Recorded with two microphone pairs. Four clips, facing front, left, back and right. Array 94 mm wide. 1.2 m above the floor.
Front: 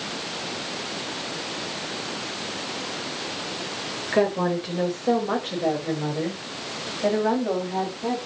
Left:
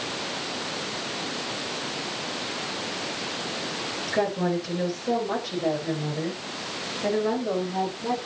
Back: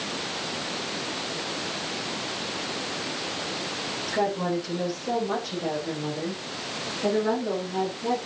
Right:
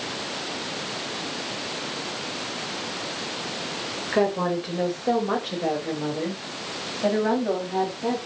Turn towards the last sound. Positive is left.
turn(degrees=-55)